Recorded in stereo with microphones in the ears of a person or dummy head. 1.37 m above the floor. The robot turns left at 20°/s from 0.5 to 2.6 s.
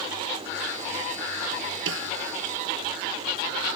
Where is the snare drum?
70° right (ahead or behind); by 2.1 s 75° right (ahead or behind).